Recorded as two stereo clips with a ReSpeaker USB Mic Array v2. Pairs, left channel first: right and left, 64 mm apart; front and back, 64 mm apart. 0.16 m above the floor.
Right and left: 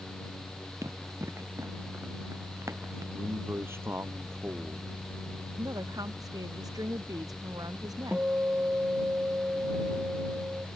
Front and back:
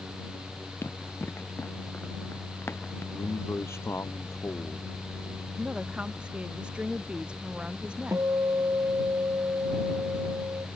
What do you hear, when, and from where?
0.8 s running footsteps: 55° left; by 3.0 s 50° left
3.1 s a man speaking: 45° left
5.6 s a woman speaking: 105° left
8.1 s a guitar: 155° left